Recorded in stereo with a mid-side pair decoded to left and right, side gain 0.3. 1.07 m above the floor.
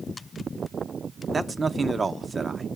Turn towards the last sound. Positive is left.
turn(degrees=-40)